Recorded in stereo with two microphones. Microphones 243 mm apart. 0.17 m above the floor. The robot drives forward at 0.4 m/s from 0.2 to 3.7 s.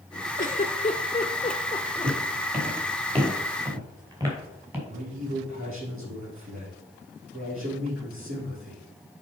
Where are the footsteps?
35° right (ahead or behind), 5.5 m; by 4.8 s 10° right (ahead or behind), 6 m.